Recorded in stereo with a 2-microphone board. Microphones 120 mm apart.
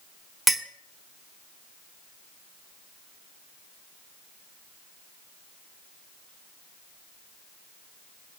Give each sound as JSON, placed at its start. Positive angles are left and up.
{"t": 0.5, "sound": "a clink", "side_deg": 0, "distance_m": 0.9}